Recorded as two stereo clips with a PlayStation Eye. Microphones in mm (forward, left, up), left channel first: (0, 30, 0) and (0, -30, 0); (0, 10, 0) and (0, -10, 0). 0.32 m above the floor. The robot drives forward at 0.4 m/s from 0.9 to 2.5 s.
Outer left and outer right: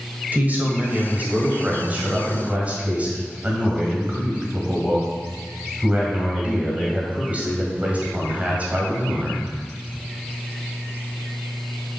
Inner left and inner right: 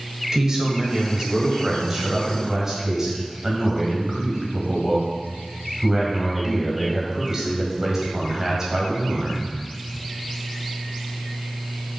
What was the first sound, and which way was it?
A man speaking, 30° right (ahead or behind).